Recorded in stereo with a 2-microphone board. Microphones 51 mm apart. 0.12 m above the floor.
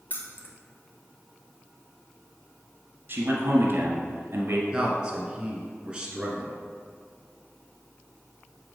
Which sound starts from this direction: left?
Keys jangling, at 0.1 s.